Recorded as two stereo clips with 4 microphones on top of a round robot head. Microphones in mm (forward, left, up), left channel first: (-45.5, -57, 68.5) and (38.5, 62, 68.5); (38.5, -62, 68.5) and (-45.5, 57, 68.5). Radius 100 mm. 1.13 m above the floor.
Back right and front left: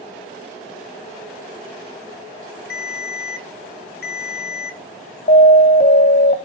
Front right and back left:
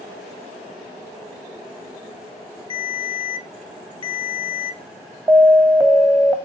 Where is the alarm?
165° right, 1.8 m.